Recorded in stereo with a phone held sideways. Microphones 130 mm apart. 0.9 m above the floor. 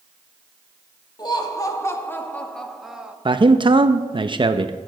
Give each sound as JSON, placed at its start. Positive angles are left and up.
{"t": 1.2, "sound": "laughter", "side_deg": 35, "distance_m": 1.5}
{"t": 3.2, "sound": "a man speaking", "side_deg": -40, "distance_m": 0.5}